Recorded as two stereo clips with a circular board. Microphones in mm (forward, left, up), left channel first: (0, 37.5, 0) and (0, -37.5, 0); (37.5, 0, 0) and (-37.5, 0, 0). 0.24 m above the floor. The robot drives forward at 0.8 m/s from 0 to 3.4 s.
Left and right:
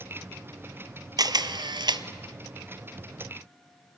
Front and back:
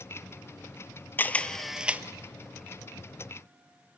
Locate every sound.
1.2 s a camera shutter: 60° right, 0.8 m; by 2.0 s 110° right, 0.8 m